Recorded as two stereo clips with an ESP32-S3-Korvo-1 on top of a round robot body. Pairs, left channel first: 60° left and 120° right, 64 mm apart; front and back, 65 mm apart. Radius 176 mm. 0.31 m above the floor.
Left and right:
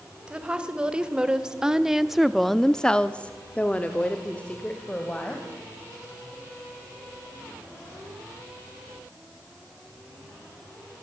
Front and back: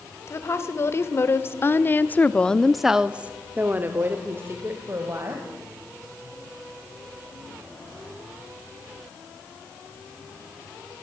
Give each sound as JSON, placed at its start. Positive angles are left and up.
{"t": 0.3, "sound": "a woman speaking", "azimuth_deg": -45, "distance_m": 2.5}